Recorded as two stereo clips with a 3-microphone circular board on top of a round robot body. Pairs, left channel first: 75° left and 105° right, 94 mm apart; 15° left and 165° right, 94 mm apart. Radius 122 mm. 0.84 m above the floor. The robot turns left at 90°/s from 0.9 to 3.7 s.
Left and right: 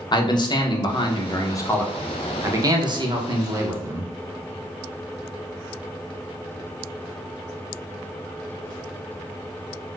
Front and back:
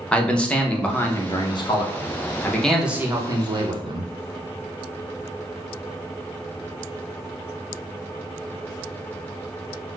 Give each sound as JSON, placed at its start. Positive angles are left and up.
{"t": 0.1, "sound": "a man speaking", "azimuth_deg": 90, "distance_m": 0.8}